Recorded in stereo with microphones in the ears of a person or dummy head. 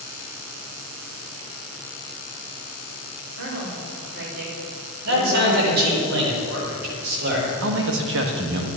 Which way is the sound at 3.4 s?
80° right.